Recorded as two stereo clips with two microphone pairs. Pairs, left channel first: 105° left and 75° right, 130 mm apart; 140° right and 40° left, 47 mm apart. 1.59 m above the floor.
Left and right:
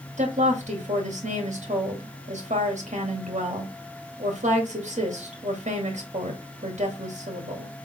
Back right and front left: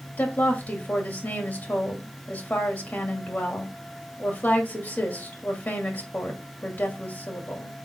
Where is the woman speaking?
90° right, 2.5 m.